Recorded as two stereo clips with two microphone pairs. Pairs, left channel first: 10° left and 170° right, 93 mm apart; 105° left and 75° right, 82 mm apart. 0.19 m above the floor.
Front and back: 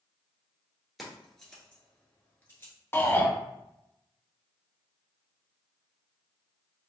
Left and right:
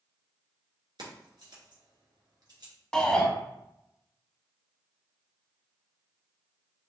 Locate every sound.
1.0 s keys jangling: 80° right, 1.9 m; by 2.7 s 50° right, 1.8 m
2.9 s a shout: 35° left, 1.1 m